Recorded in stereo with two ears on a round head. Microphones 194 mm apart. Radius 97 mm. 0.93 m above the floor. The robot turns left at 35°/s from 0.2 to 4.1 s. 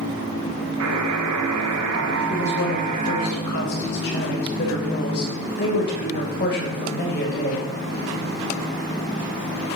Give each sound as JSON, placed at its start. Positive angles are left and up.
{"t": 0.8, "sound": "a buzzer", "azimuth_deg": -65, "distance_m": 1.6}
{"t": 2.3, "sound": "a woman speaking", "azimuth_deg": 115, "distance_m": 4.0}